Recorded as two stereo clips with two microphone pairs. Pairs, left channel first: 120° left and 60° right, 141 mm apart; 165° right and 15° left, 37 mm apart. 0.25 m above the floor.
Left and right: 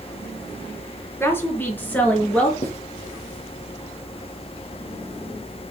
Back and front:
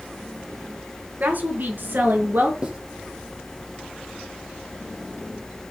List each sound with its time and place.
1.2 s a woman speaking: 50° left, 3.5 m; by 2.5 s 40° left, 5 m
2.6 s writing: 80° left, 3 m